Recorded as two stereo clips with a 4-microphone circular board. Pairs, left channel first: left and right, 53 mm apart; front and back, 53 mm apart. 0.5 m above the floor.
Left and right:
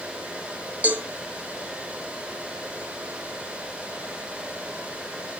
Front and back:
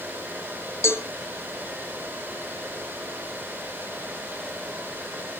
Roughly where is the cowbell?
Ahead right.